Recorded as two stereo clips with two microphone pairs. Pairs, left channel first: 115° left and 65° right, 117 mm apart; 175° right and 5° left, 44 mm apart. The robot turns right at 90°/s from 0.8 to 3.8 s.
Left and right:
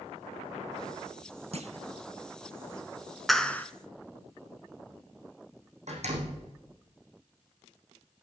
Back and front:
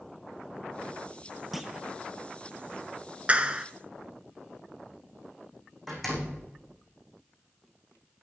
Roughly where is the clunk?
Right.